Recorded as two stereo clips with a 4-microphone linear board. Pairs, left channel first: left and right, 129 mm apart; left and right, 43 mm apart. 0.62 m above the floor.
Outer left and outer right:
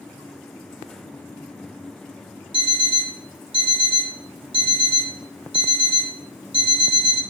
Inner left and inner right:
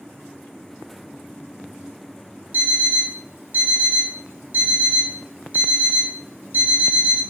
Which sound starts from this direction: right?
An alarm clock, at 2.5 s.